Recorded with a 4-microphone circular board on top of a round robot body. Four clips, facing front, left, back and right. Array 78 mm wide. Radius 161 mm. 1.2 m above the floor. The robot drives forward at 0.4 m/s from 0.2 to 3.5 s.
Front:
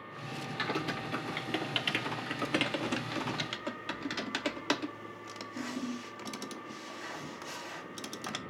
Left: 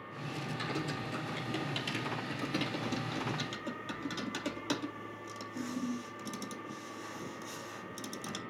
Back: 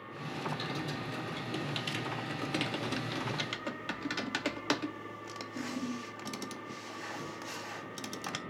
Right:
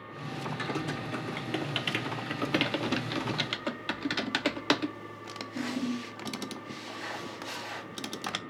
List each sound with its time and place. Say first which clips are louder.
0.6 s typing on a keyboard: right 3 dB, front 3 dB; 30° right, 1.4 m; by 8.4 s 90° right, 0.8 m